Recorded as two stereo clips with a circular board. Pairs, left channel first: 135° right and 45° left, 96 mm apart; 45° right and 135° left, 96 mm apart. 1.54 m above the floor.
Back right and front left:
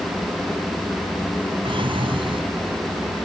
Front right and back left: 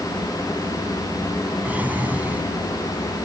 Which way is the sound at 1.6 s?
65° left.